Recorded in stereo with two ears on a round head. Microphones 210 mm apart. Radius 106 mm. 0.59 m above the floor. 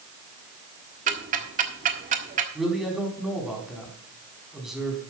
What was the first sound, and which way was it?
Ticking, 35° right (ahead or behind).